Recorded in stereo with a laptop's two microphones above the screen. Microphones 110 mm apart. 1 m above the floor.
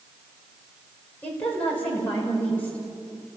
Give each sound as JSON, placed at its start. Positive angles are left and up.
{"t": 1.2, "sound": "a woman speaking", "side_deg": 15, "distance_m": 5.0}